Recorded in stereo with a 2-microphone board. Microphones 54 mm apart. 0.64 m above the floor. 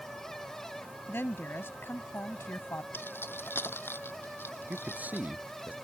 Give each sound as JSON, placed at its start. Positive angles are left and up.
{"t": 1.1, "sound": "a woman speaking", "side_deg": 45}
{"t": 2.9, "sound": "keys jangling", "side_deg": 45}
{"t": 4.7, "sound": "a man speaking", "side_deg": -30}